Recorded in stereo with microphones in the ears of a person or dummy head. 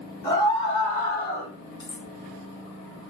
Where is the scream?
25° left (ahead or behind), 1.6 m; by 1.5 s 60° left (ahead or behind), 1.1 m.